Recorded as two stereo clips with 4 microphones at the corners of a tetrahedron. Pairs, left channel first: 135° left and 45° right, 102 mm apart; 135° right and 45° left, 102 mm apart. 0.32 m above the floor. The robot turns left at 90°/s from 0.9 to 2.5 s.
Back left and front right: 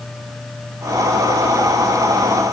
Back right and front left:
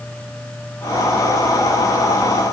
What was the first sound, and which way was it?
Only background noise.